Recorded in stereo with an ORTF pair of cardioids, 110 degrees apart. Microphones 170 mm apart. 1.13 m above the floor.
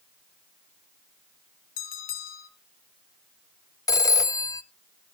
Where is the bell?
65° left, 3.5 m.